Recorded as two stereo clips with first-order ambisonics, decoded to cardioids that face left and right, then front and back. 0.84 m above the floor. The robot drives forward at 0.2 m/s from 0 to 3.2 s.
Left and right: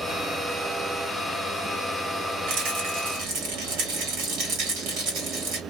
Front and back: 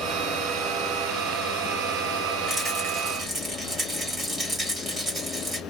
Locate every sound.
2.5 s a rattle: 100° right, 1.7 m; by 5.6 s 110° right, 1.7 m